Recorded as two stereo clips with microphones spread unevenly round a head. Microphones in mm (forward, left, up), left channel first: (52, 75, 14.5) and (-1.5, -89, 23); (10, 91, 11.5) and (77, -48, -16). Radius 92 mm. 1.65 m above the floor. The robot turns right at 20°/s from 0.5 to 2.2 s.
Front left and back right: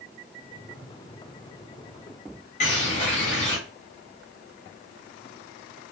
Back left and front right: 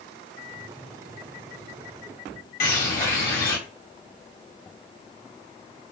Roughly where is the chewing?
I don't hear chewing.